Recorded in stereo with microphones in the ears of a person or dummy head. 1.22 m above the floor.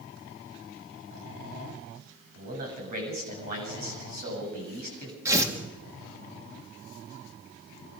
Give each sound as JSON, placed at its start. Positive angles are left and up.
{"t": 2.4, "sound": "a man speaking", "side_deg": -45, "distance_m": 8.5}
{"t": 5.2, "sound": "tearing paper", "side_deg": -25, "distance_m": 2.5}